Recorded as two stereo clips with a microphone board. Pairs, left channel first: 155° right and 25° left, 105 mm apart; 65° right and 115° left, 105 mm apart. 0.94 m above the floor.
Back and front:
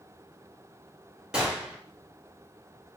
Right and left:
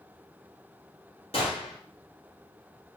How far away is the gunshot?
About 0.9 m.